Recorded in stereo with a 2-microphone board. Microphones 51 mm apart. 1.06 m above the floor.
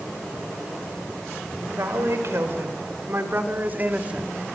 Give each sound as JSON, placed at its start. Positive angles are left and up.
{"t": 1.7, "sound": "a woman speaking", "side_deg": -65, "distance_m": 5.5}